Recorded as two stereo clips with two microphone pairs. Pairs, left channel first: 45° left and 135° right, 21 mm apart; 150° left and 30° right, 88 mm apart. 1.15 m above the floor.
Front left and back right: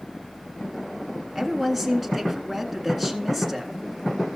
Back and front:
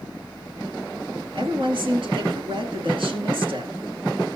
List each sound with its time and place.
1.4 s a woman speaking: 40° right, 1.8 m